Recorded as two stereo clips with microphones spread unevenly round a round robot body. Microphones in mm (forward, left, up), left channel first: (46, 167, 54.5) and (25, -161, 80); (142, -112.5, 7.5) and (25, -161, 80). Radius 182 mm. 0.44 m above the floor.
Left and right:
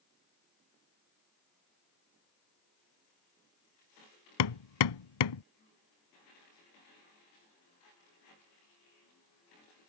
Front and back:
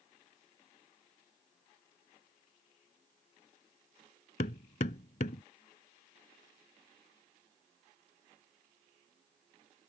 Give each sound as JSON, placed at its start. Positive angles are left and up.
{"t": 4.4, "sound": "hammering", "azimuth_deg": 80}